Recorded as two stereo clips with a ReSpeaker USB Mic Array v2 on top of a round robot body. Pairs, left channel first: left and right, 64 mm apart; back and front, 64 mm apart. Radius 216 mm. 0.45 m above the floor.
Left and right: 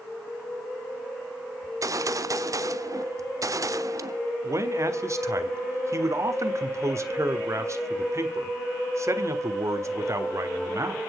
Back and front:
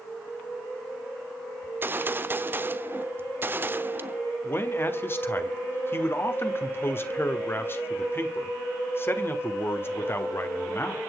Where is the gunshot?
60° right, 0.9 m.